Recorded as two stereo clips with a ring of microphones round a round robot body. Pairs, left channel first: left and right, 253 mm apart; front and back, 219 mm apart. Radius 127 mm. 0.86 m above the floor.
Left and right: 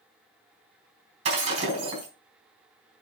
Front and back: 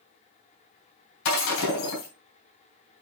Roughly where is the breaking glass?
Ahead right.